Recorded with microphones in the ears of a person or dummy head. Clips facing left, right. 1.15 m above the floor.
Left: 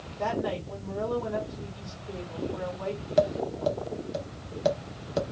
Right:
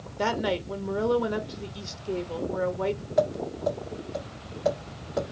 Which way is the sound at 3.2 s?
40° left (ahead or behind).